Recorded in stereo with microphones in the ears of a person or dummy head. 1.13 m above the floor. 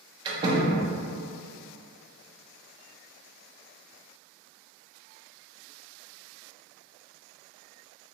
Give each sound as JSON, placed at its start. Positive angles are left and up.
{"t": 0.2, "sound": "a door slam", "side_deg": -20, "distance_m": 0.6}